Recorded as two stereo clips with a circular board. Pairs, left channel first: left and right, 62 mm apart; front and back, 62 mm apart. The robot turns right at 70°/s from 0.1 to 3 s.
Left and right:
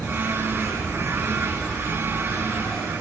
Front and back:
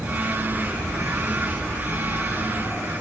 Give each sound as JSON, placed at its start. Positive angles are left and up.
{"t": 0.0, "sound": "an insect", "azimuth_deg": -170, "distance_m": 2.0}